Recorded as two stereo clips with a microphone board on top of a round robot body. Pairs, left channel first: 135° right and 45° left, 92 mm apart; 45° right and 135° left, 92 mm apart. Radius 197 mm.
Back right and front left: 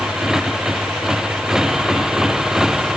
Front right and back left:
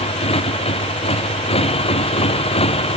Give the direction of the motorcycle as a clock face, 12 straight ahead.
1 o'clock.